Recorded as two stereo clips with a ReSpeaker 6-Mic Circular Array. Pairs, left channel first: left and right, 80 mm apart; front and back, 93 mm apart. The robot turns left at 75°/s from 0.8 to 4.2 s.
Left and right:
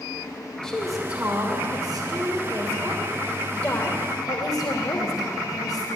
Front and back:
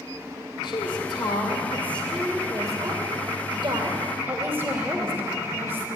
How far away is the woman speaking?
About 2.5 m.